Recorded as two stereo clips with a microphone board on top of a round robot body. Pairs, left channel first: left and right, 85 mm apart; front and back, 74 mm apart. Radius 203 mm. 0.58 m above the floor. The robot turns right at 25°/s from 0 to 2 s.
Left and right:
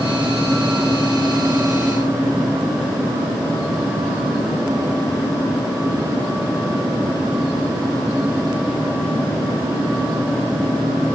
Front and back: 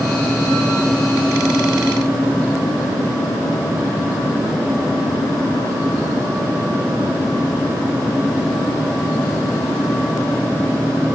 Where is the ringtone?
I don't hear a ringtone.